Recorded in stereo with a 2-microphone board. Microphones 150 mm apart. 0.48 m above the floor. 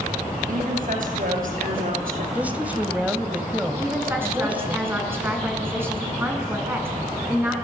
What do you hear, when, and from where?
0.5 s a woman speaking: 65° right (ahead or behind), 8 m; by 2.2 s 75° right (ahead or behind), 7 m
2.4 s a woman speaking: 10° right (ahead or behind), 2.5 m
3.8 s a woman speaking: 15° right (ahead or behind), 5 m